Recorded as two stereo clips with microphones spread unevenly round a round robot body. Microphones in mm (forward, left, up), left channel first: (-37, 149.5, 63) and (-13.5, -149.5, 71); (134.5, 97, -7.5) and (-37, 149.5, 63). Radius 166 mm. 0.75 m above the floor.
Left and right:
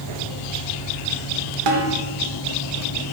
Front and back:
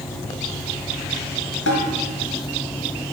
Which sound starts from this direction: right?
A snare drum, at 1.7 s.